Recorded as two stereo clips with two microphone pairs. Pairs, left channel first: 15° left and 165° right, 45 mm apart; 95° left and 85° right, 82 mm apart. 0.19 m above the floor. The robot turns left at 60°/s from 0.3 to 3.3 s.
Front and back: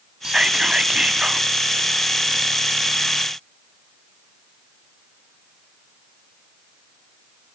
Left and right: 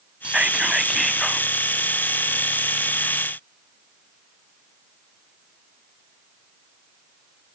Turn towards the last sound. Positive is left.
turn(degrees=45)